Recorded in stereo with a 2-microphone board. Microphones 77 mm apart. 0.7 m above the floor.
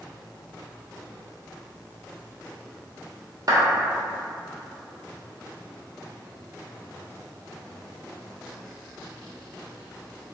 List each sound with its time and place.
3.5 s a clap: 50° right (ahead or behind), 1.3 m